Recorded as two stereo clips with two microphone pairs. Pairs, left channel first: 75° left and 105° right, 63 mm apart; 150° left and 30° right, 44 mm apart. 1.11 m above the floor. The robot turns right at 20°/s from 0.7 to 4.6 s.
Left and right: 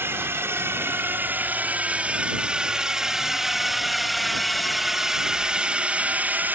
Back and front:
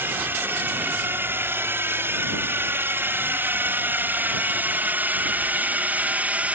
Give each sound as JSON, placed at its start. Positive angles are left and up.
{"t": 0.0, "sound": "a drone", "azimuth_deg": -60}